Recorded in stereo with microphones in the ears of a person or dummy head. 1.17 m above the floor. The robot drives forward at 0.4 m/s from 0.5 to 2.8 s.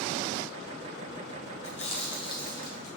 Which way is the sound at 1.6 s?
35° left (ahead or behind).